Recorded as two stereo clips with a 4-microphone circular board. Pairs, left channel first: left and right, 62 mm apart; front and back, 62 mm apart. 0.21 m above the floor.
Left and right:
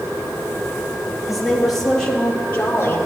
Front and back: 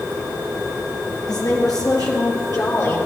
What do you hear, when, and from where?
1.3 s a woman speaking: straight ahead, 4.5 m; by 3.0 s 35° left, 4 m